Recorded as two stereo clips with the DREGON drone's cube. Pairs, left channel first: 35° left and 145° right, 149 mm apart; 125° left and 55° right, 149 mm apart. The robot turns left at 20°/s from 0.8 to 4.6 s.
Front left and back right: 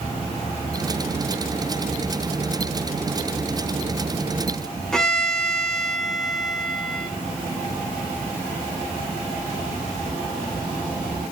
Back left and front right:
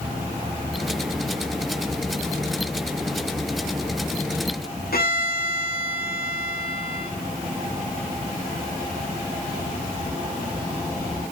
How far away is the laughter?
No laughter in this recording.